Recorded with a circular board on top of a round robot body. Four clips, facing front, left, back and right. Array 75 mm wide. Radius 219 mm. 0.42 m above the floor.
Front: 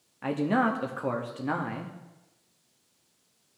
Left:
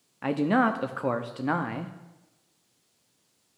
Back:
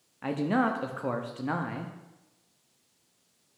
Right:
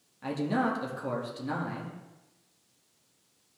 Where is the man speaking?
85° left, 0.9 m.